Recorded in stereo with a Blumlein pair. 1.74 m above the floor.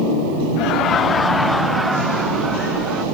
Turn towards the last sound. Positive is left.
turn(degrees=-20)